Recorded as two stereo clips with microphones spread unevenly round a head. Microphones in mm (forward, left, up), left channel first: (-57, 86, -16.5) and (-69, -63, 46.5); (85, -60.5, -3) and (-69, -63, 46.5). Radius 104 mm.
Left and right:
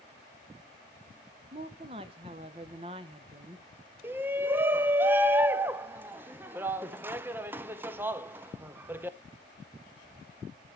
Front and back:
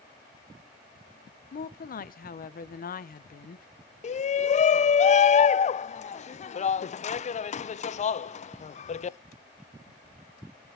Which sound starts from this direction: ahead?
A shout, at 4.0 s.